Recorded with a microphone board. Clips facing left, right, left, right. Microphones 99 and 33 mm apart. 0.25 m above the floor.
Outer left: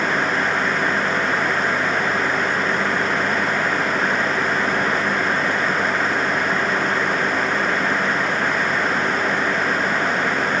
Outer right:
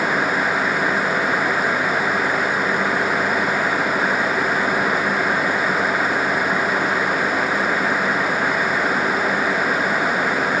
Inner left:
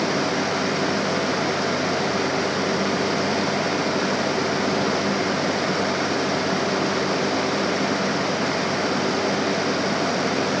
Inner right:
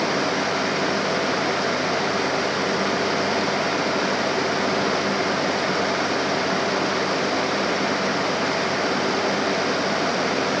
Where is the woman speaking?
I don't hear a woman speaking.